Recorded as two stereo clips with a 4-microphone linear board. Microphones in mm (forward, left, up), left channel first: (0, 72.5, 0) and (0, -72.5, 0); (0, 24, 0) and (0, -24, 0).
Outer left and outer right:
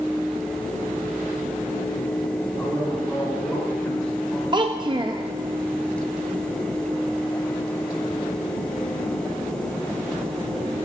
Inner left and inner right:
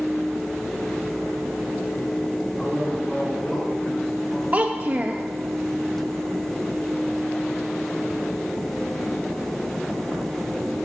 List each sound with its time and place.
2.6 s a man speaking: 10° left (ahead or behind), 6 m; by 4.4 s 5° left (ahead or behind), 7.5 m
4.5 s a child speaking: 30° right (ahead or behind), 0.6 m